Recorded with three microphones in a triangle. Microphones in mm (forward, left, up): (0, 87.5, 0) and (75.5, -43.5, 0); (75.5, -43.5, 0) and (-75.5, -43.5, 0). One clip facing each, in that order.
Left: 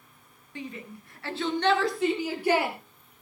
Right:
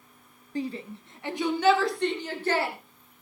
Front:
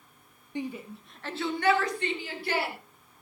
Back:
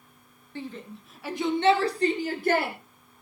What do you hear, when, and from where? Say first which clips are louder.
0.6 s a shout: right 7 dB, front 3 dB; 60° right, 1.9 m; by 2.8 s 170° right, 2.5 m